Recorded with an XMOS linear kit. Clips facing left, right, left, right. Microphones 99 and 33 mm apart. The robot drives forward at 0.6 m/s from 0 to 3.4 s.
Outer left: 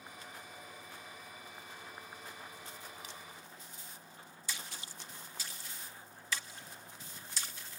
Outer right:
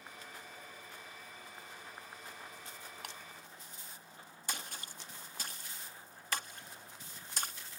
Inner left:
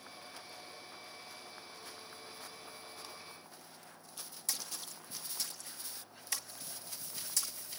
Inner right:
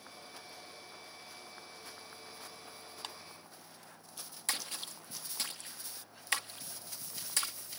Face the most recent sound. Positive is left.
turn(degrees=-55)  # may be behind; listen again after turning